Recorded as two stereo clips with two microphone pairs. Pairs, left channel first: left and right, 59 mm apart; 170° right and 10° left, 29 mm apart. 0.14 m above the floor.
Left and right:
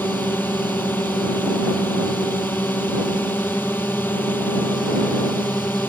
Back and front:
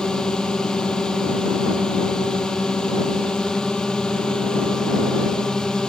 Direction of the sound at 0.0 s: 135° left.